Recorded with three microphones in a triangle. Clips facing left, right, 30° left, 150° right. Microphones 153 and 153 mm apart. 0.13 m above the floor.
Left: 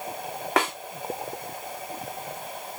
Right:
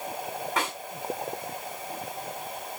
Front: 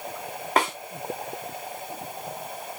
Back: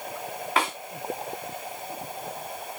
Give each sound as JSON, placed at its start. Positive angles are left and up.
{"t": 0.6, "sound": "a snare drum", "azimuth_deg": 75, "distance_m": 2.5}